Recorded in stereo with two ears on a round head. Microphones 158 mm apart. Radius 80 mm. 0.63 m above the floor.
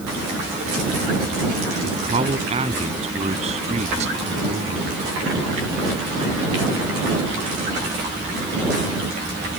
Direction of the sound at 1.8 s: 30° right (ahead or behind).